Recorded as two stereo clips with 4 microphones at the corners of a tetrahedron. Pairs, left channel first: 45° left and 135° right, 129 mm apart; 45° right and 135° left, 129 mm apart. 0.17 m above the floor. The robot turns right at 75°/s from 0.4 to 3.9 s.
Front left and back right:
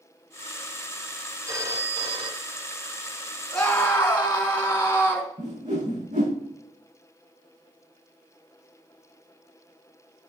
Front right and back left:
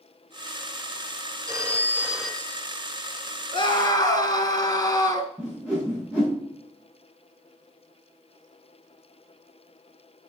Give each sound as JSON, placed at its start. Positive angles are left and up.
{"t": 1.5, "sound": "a phone ringing", "azimuth_deg": 165, "distance_m": 1.1}
{"t": 3.5, "sound": "a scream", "azimuth_deg": -45, "distance_m": 1.9}
{"t": 5.4, "sound": "a whoosh", "azimuth_deg": -125, "distance_m": 5.5}